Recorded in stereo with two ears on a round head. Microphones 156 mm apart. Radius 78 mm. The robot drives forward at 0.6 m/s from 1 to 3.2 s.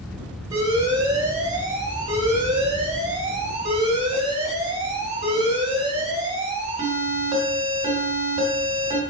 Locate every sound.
0.5 s an alarm: 25° right (ahead or behind), 4 m; by 9.0 s 30° right (ahead or behind), 3 m